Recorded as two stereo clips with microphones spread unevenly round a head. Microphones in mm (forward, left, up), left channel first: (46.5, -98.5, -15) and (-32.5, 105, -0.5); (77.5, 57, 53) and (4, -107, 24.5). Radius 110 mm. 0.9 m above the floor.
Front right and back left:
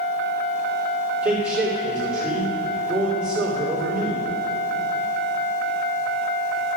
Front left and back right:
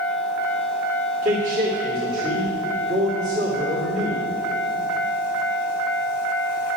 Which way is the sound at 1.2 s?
165° right.